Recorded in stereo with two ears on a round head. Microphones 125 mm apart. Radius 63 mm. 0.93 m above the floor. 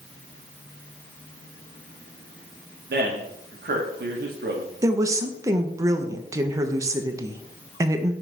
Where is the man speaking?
80° right, 1.3 m.